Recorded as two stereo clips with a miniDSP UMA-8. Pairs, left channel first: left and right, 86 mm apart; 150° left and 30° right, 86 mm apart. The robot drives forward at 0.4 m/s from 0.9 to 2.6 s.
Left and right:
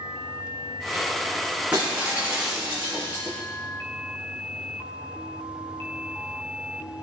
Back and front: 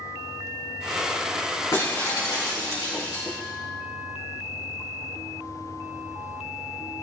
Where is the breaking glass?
165° right, 5 m.